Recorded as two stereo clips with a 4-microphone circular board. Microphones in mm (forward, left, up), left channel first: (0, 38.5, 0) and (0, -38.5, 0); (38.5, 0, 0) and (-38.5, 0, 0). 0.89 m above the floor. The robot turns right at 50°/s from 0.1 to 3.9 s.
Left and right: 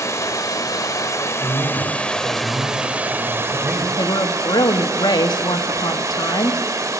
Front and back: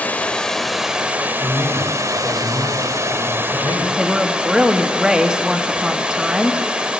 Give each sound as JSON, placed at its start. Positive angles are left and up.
{"t": 0.0, "sound": "running water", "azimuth_deg": 60, "distance_m": 0.8}
{"t": 1.4, "sound": "a man speaking", "azimuth_deg": -140, "distance_m": 3.0}
{"t": 4.0, "sound": "a woman speaking", "azimuth_deg": 100, "distance_m": 1.0}